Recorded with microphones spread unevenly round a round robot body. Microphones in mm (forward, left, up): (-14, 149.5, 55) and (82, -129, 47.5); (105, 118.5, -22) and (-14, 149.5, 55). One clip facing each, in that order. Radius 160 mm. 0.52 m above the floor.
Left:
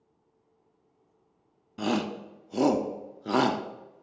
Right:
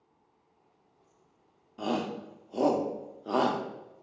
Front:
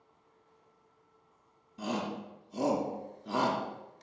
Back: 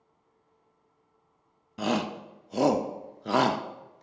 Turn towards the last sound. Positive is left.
turn(degrees=145)